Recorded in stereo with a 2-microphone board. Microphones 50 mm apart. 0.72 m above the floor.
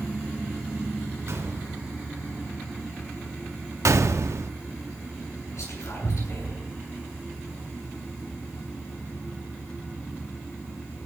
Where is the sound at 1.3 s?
65° right (ahead or behind), 2 m.